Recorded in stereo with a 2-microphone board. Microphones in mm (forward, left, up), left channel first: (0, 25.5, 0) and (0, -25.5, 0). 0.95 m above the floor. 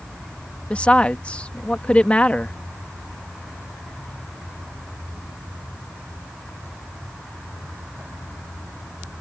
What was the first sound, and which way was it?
A woman speaking, 25° left (ahead or behind).